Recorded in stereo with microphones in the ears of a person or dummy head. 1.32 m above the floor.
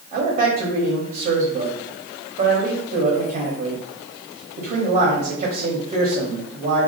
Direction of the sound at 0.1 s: 40° right (ahead or behind).